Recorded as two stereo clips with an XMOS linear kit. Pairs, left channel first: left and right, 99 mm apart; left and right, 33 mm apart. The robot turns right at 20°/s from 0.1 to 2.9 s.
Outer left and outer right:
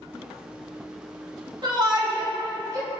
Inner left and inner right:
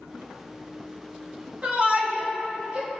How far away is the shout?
About 3.5 m.